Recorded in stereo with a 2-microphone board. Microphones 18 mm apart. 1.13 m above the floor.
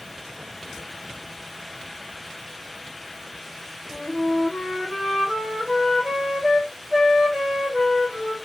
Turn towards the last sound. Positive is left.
turn(degrees=-30)  # may be behind; listen again after turning